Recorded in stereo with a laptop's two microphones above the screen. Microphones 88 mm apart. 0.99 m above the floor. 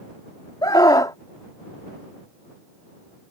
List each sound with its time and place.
0.6 s a scream: 50° left (ahead or behind)